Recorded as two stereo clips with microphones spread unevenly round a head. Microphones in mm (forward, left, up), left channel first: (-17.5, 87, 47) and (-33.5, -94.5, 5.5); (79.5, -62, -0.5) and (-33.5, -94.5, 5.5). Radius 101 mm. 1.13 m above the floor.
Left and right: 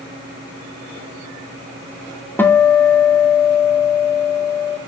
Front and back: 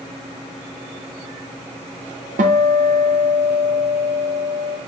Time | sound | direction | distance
2.4 | a guitar | 170° left | 0.6 m